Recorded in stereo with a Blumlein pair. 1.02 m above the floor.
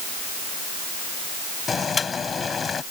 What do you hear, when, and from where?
1.7 s boiling: 15° left